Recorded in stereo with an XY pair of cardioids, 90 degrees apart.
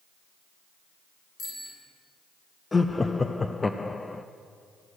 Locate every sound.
1.4 s a bicycle bell: 65° left, 5.5 m
2.7 s laughter: 30° left, 0.6 m